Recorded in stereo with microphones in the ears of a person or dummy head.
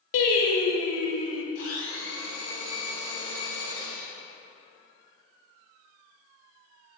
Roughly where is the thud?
No thud in this recording.